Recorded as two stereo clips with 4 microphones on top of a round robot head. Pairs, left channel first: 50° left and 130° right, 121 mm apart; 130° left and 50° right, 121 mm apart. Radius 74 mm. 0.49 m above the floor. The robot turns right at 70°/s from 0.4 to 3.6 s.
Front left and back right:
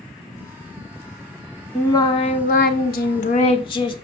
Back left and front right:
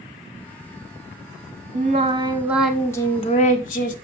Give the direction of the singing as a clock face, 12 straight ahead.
1 o'clock.